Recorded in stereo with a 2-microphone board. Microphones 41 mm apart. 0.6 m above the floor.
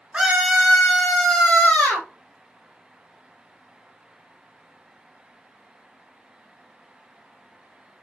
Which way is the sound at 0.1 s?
20° right (ahead or behind).